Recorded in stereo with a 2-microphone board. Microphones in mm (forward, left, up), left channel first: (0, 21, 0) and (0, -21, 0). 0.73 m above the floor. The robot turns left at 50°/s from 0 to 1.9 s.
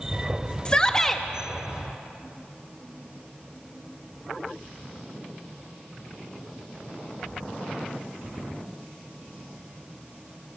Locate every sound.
0.7 s a shout: 25° left (ahead or behind), 0.8 m; by 1.2 s 5° left (ahead or behind), 0.8 m